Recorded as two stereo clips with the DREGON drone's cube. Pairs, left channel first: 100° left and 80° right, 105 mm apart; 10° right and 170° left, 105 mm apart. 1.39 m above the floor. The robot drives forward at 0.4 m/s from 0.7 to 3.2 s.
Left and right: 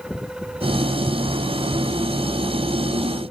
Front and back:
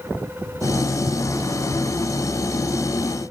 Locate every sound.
Only background noise.